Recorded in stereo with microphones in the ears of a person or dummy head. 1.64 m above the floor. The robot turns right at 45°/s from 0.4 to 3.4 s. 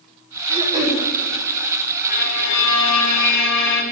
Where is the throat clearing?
35° right (ahead or behind), 4.5 m; by 1.0 s 10° right (ahead or behind), 4.5 m.